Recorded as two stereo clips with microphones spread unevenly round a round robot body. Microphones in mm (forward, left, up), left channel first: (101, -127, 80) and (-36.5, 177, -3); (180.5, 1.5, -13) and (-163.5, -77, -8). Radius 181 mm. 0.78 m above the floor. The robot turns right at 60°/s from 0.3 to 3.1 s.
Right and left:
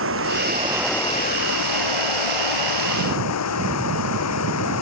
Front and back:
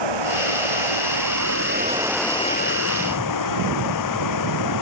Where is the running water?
170° left; by 4.8 s 20° right.